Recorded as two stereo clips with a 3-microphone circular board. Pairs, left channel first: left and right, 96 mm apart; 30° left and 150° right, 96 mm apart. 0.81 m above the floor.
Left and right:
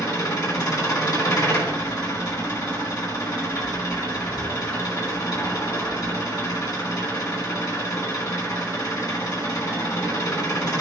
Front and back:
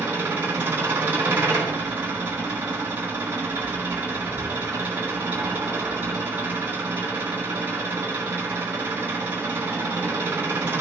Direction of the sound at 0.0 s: 140° left.